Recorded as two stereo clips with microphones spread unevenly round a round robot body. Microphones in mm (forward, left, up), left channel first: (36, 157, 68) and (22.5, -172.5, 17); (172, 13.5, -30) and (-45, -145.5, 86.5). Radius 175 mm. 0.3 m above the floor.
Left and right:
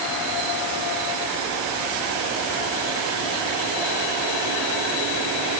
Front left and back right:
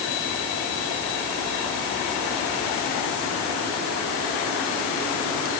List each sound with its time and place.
Only background noise.